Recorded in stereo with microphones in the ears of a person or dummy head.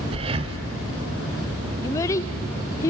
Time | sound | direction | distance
0.1 | breathing | 30° right (ahead or behind) | 0.9 m
1.8 | a child speaking | 15° left (ahead or behind) | 0.5 m